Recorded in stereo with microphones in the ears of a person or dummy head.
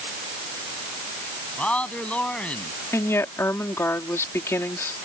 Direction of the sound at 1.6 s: 5° left (ahead or behind).